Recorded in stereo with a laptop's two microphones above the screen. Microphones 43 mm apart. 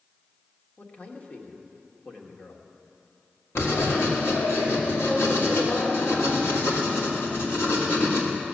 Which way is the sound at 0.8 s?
35° left (ahead or behind).